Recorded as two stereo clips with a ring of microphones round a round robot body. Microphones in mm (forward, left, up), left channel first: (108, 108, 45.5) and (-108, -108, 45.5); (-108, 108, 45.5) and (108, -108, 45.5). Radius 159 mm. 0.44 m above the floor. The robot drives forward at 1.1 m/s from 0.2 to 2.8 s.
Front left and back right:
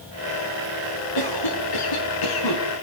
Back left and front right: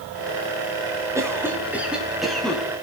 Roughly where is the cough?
Ahead left.